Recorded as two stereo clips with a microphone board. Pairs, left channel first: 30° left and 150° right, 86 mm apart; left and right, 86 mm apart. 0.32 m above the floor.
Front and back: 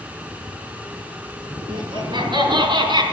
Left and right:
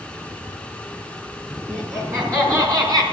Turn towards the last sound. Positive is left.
turn(degrees=-130)